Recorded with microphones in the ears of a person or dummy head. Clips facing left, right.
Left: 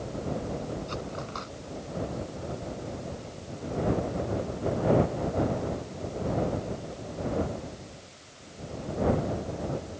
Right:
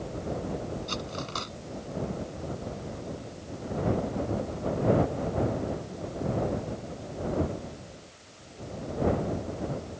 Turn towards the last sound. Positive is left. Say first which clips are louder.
# even
turn(degrees=-55)  # may be behind; listen again after turning